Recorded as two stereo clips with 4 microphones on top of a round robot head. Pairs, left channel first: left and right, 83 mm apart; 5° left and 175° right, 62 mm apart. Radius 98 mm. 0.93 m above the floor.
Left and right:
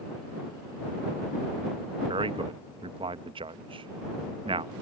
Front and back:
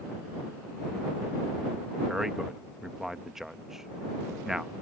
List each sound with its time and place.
2.1 s a man speaking: 90° right